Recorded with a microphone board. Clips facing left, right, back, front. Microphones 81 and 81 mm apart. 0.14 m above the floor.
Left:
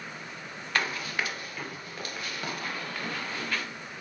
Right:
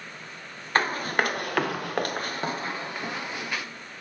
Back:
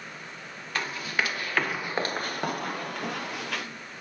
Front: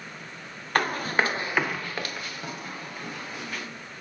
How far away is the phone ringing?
No phone ringing in this recording.